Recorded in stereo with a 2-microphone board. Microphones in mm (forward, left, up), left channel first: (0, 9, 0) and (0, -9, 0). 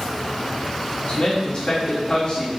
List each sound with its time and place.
1.1 s a man speaking: 40° left (ahead or behind), 1.4 m